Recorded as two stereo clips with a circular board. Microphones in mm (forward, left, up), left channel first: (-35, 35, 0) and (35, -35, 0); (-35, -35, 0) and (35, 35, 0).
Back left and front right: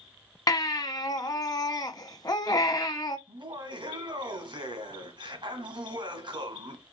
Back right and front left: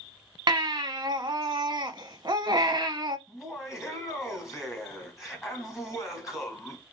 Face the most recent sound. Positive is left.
turn(degrees=-40)